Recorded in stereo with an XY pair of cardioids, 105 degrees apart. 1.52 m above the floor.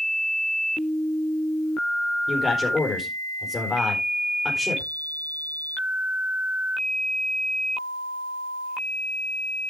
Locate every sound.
2.3 s a man speaking: 30° left, 4 m